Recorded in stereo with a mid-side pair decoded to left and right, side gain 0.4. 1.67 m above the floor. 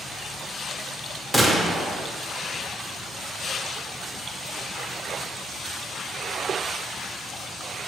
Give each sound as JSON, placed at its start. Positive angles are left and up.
{"t": 1.3, "sound": "a gunshot", "azimuth_deg": -10, "distance_m": 0.9}